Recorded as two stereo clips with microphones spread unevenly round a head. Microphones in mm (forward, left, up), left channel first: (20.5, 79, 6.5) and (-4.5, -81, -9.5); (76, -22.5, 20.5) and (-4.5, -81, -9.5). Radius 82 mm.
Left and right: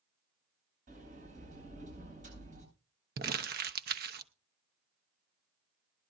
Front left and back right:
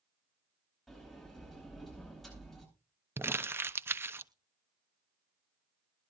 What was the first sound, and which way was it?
A sliding door, 55° right.